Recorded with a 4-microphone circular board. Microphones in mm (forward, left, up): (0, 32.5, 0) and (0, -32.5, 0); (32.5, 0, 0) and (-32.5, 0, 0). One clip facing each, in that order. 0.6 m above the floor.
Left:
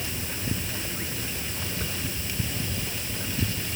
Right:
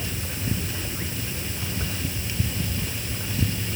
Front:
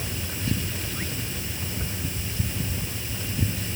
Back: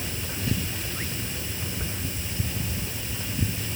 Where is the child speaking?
I don't hear a child speaking.